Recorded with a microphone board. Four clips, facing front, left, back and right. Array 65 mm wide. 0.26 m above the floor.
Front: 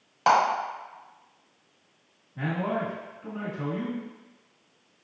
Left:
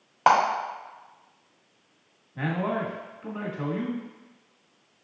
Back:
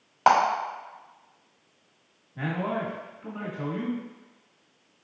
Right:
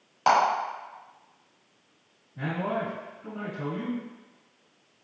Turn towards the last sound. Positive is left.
turn(degrees=105)